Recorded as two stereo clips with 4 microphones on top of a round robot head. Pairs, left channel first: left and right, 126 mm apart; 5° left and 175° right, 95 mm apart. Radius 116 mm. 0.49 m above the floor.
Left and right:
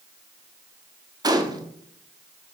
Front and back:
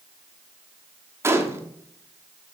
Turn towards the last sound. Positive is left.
turn(degrees=-130)